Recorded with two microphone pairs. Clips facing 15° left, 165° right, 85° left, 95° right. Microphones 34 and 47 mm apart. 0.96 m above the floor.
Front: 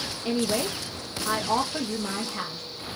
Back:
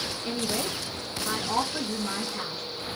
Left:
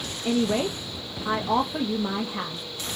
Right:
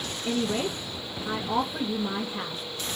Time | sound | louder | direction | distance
0.2 | a woman speaking | front 5 dB, left 4 dB | 80° left | 0.5 m